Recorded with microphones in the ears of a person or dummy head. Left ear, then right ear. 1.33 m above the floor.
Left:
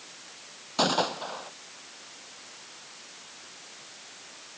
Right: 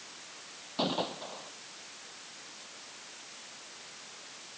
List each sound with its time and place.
0.8 s a gunshot: 55° left (ahead or behind)